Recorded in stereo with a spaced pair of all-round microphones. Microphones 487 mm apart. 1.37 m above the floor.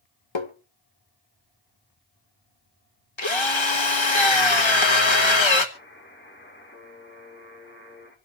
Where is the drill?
65° left (ahead or behind), 1.4 m.